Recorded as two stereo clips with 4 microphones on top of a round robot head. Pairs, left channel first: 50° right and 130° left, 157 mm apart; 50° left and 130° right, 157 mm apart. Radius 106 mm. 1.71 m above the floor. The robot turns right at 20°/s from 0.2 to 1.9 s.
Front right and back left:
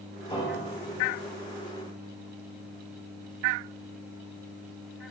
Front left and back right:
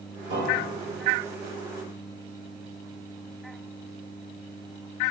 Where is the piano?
100° right, 1.4 m; by 1.1 s 85° right, 1.4 m.